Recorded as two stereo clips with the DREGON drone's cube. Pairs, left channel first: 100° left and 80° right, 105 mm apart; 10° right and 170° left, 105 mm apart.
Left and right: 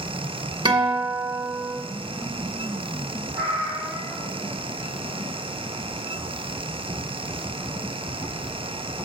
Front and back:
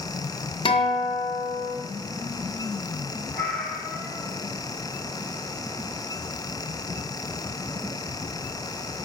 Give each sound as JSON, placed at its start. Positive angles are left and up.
{"t": 0.7, "sound": "a guitar", "azimuth_deg": -35, "distance_m": 1.8}
{"t": 3.3, "sound": "a cat meowing", "azimuth_deg": -90, "distance_m": 1.9}